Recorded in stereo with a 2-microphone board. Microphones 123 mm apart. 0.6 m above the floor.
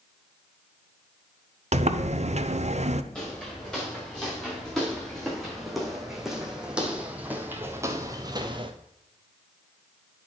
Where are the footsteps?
10° left (ahead or behind), 4 m; by 8.7 s 45° right (ahead or behind), 0.9 m.